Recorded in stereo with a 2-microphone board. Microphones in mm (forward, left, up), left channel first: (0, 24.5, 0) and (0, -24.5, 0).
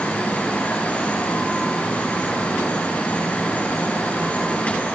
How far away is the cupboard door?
No cupboard door in this recording.